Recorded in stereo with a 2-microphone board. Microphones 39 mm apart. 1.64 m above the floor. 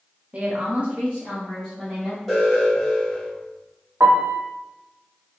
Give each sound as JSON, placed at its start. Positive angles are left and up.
{"t": 0.3, "sound": "a woman speaking", "side_deg": -40, "distance_m": 0.7}
{"t": 2.3, "sound": "an alarm", "side_deg": -10, "distance_m": 1.7}
{"t": 4.0, "sound": "a piano", "side_deg": -75, "distance_m": 0.6}